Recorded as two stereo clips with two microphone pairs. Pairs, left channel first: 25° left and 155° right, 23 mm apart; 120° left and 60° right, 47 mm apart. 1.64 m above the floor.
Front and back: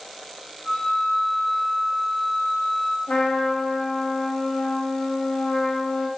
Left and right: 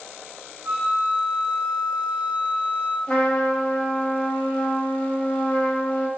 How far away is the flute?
About 0.8 m.